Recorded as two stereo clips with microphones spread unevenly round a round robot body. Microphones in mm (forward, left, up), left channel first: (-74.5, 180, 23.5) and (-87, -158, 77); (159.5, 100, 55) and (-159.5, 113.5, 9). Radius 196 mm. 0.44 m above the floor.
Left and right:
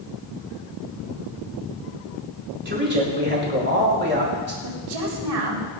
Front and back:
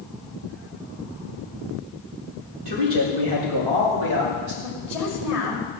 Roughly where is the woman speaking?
Right.